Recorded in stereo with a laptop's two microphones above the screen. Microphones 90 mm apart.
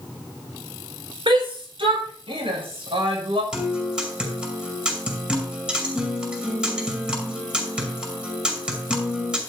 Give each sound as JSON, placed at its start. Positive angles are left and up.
{"t": 1.3, "sound": "a shout", "side_deg": -70, "distance_m": 3.5}
{"t": 3.5, "sound": "a guitar", "side_deg": -10, "distance_m": 5.5}